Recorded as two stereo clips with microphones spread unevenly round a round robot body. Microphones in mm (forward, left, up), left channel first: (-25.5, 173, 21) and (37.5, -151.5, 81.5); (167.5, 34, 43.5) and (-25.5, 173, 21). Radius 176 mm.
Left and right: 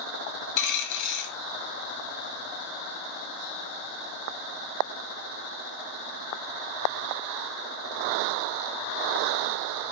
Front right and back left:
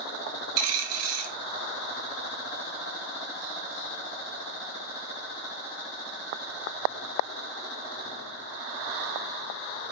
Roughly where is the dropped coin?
Behind left.